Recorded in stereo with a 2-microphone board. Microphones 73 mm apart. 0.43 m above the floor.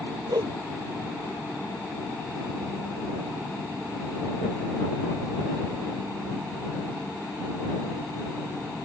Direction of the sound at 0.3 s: 65° right (ahead or behind).